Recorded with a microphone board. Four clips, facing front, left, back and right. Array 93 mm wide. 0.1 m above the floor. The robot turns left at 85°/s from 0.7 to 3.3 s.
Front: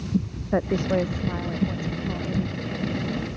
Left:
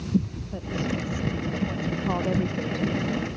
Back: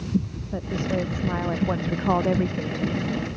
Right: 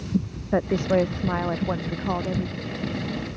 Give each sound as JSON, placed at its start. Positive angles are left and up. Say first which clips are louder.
{"t": 0.5, "sound": "a woman speaking", "louder": "right 9 dB, front 4 dB", "azimuth_deg": -50}